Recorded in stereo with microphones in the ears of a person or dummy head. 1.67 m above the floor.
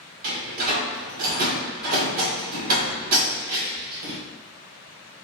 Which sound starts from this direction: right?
A door slam, at 0.2 s.